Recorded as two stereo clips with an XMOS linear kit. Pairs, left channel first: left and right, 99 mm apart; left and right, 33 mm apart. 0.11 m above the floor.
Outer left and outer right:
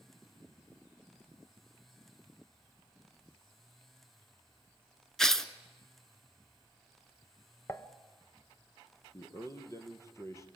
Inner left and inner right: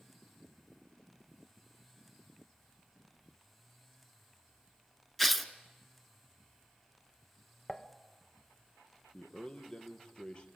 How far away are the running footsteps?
No running footsteps in this recording.